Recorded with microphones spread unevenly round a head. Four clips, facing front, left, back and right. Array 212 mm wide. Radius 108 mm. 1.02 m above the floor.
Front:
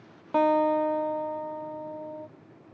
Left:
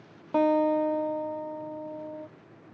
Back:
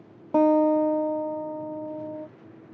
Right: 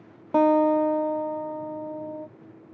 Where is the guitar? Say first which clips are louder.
Right 4 dB, back 3 dB; 140° right, 0.6 m.